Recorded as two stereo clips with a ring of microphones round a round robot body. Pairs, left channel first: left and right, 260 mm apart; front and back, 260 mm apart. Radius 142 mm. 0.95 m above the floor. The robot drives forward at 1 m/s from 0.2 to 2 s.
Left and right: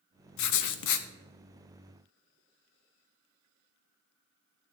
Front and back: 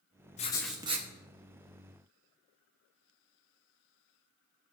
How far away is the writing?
About 0.8 m.